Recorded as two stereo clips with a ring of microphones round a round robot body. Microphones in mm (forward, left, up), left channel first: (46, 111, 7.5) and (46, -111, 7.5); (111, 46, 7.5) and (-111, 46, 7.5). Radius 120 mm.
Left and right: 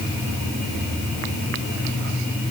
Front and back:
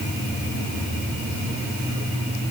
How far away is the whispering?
No whispering in this recording.